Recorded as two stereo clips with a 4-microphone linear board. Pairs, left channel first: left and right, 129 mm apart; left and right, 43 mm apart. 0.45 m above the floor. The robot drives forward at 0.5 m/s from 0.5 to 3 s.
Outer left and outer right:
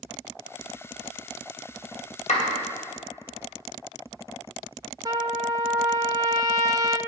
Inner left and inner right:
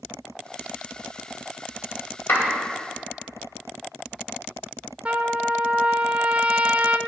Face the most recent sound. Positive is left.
turn(degrees=-30)  # may be behind; listen again after turning